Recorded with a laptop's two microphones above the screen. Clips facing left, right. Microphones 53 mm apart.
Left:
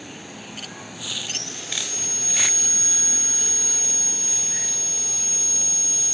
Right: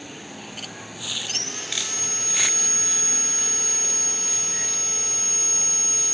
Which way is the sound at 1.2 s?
50° right (ahead or behind).